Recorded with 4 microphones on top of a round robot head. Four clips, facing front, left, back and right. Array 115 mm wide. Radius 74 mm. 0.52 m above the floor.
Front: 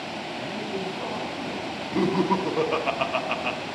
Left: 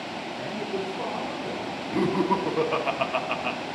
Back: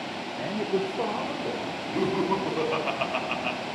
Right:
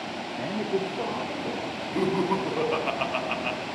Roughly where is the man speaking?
Behind right.